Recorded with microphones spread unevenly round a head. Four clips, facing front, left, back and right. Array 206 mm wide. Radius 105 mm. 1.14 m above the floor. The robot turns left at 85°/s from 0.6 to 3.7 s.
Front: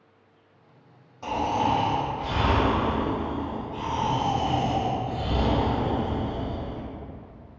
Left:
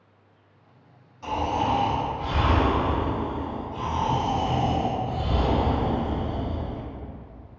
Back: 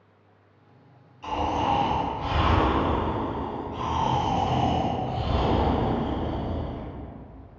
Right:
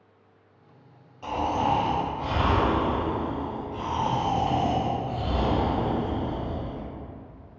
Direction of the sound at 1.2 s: 5° right.